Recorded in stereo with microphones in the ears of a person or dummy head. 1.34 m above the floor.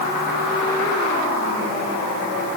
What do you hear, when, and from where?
Only background noise.